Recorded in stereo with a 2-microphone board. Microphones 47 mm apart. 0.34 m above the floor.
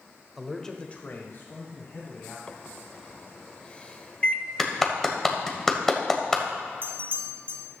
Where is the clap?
10° left (ahead or behind), 1.4 m.